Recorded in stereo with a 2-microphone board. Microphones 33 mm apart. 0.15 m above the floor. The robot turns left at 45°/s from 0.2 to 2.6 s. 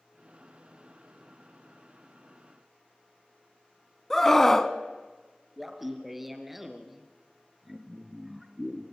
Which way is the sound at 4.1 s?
15° left (ahead or behind).